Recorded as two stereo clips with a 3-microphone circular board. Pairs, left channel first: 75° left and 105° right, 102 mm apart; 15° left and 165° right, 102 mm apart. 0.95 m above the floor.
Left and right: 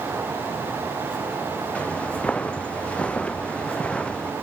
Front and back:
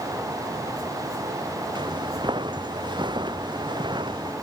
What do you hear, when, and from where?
1.8 s footsteps: 155° left